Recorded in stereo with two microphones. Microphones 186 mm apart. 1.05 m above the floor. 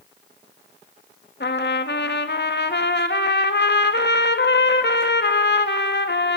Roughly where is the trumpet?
Left.